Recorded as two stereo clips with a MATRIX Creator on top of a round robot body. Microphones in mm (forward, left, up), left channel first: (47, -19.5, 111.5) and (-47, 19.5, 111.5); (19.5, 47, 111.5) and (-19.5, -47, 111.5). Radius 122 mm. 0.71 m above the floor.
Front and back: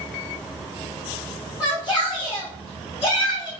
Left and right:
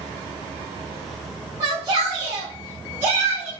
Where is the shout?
70° right, 1.1 m; by 3.5 s 45° right, 2 m.